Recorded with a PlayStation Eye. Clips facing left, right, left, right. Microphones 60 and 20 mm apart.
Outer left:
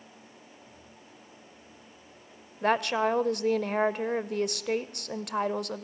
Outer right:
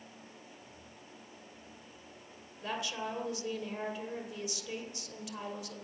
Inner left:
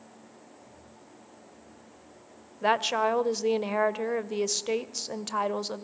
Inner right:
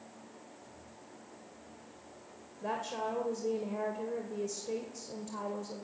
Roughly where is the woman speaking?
Left.